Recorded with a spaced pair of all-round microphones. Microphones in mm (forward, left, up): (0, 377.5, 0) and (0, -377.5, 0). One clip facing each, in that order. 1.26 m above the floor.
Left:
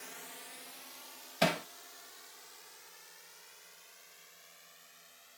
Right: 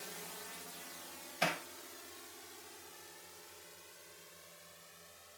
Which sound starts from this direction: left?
Hammering, at 1.4 s.